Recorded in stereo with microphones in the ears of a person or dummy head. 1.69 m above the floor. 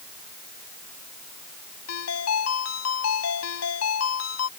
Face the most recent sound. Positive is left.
turn(degrees=85)